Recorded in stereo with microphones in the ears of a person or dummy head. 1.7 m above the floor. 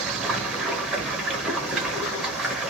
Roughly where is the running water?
Centre.